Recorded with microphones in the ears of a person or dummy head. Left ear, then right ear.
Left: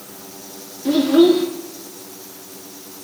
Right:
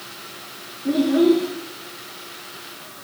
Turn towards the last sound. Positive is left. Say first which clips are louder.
# left 4 dB
turn(degrees=35)  # may be behind; listen again after turning